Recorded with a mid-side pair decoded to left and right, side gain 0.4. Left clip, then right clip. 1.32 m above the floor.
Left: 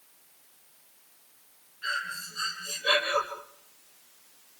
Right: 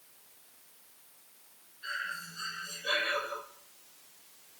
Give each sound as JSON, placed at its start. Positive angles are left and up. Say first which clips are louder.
{"t": 1.8, "sound": "breathing", "louder": "left 5 dB", "azimuth_deg": 65, "distance_m": 8.5}